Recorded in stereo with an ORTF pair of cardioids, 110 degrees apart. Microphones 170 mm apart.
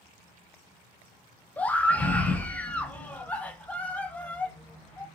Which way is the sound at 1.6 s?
10° left.